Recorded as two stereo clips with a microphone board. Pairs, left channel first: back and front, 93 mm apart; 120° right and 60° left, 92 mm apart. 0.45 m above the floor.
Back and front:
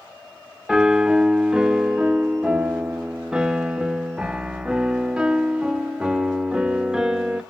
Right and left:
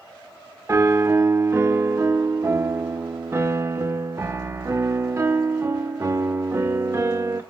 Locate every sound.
0.7 s a piano: 70° left, 0.5 m